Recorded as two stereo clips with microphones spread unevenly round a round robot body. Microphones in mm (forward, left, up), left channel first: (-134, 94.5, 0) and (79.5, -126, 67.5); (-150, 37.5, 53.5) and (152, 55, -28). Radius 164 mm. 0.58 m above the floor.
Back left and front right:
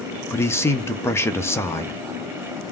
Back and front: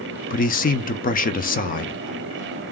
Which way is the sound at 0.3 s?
120° left.